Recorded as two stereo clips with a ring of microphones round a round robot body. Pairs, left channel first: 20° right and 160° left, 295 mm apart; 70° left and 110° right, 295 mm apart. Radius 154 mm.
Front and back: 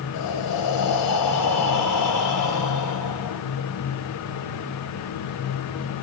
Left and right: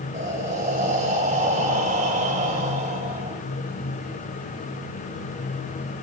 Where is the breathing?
45° right, 2 m.